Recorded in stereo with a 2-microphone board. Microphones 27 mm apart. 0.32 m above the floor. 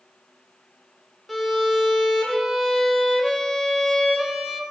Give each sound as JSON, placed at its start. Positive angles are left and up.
{"t": 1.3, "sound": "a violin", "side_deg": -5, "distance_m": 1.2}